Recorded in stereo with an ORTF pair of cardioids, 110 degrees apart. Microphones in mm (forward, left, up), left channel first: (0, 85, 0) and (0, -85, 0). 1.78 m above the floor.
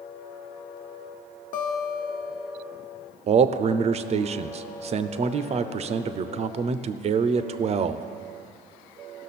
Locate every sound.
1.5 s a guitar: 50° left, 1.1 m
3.3 s a man speaking: 40° right, 0.6 m